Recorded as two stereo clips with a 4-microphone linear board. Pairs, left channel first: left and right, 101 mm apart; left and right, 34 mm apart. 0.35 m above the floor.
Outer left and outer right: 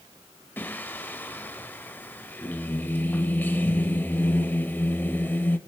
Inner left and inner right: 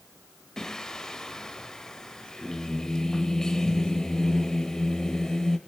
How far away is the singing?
About 0.6 m.